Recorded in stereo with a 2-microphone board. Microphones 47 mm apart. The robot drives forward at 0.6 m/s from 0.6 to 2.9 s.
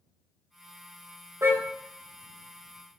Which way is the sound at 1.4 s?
65° right (ahead or behind).